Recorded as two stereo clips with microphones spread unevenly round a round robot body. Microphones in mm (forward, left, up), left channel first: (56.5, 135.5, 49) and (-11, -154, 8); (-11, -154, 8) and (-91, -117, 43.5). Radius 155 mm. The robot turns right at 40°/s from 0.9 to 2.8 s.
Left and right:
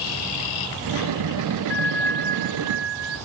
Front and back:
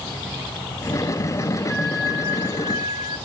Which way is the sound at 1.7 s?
175° left.